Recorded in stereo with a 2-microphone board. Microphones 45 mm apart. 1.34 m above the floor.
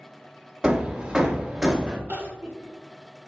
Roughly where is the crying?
Right.